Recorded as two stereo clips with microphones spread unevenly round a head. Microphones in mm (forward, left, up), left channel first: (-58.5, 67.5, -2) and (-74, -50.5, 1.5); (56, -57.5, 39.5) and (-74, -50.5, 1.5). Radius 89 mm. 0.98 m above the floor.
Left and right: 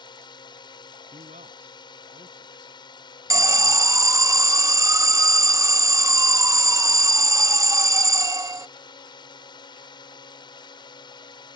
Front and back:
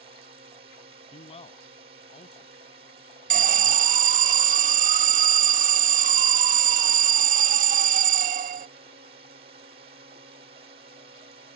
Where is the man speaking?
45° right.